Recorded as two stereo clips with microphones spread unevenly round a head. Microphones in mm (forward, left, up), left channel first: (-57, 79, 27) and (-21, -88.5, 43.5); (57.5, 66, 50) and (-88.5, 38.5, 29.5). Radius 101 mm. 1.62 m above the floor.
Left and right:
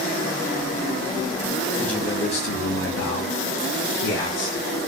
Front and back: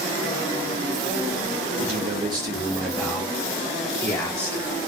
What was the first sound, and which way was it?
A man speaking, 160° right.